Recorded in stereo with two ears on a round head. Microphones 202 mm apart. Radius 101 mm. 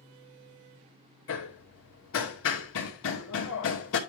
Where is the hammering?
65° left (ahead or behind), 2.5 m.